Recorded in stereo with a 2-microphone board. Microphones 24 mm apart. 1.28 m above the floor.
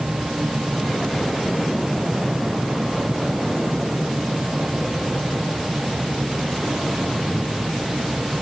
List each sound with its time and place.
Only background noise.